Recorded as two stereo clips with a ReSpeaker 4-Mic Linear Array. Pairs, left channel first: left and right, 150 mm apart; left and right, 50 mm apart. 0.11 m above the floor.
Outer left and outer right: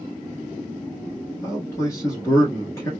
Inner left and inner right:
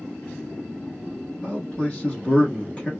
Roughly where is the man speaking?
Left.